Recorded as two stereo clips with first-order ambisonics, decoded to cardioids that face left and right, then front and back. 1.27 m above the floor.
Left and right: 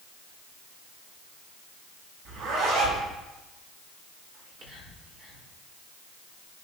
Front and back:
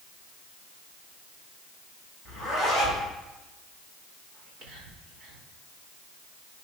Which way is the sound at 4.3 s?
145° right.